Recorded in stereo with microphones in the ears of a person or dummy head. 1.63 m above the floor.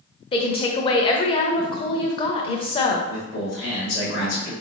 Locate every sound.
0.3 s a woman speaking: 25° left (ahead or behind), 0.6 m
3.1 s a man speaking: 70° left (ahead or behind), 2.0 m